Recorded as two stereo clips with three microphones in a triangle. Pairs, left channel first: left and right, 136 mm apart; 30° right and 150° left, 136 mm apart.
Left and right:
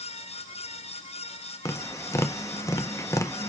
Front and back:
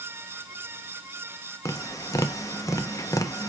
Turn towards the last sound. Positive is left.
turn(degrees=30)